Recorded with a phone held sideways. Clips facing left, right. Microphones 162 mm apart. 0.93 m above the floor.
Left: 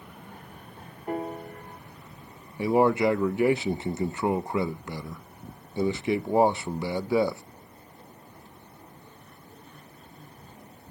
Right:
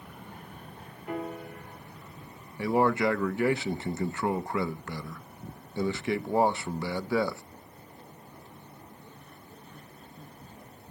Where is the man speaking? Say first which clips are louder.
Left 3 dB; 20° left (ahead or behind), 0.6 m.